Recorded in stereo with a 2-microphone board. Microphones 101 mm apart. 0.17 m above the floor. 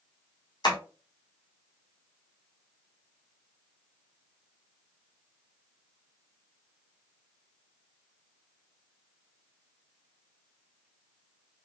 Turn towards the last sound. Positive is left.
turn(degrees=50)  # may be behind; listen again after turning